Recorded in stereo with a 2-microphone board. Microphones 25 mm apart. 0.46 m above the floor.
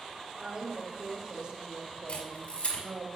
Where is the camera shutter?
65° left (ahead or behind), 4 m.